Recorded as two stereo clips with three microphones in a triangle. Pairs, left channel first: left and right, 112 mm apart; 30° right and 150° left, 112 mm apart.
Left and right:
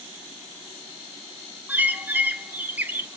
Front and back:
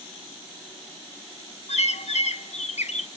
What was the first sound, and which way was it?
A bird, 15° right.